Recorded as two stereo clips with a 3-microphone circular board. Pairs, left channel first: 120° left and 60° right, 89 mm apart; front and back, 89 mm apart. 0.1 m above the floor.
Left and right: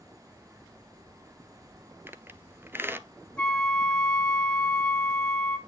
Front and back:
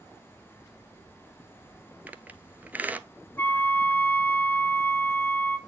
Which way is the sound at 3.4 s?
50° left.